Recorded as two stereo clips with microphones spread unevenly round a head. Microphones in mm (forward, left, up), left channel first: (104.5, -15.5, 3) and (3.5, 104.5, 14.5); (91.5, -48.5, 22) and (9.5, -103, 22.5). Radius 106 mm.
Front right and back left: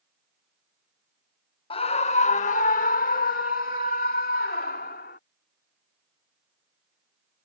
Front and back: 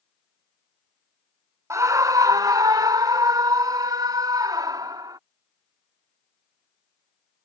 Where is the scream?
95° right.